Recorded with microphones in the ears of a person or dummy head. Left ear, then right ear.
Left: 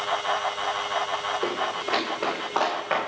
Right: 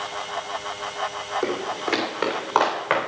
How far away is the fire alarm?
No fire alarm in this recording.